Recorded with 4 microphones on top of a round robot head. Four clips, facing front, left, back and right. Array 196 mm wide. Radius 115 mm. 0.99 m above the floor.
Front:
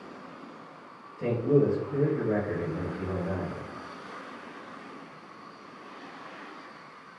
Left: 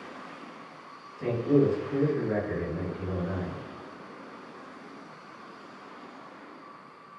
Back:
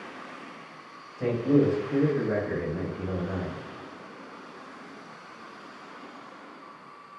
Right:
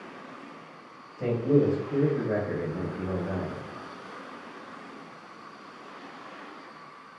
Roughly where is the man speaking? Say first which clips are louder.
Even, back 1 dB; behind right.